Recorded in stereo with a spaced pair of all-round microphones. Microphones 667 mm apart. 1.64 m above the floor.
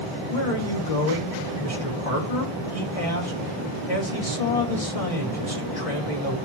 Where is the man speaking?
55° left (ahead or behind), 4 m.